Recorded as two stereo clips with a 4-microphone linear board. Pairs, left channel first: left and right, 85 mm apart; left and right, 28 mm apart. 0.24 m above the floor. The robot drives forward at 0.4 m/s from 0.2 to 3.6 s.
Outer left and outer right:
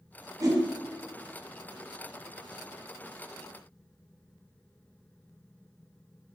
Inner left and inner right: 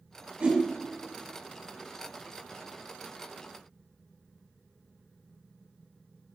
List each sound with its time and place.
0.4 s a whoosh: 45° right (ahead or behind), 1.7 m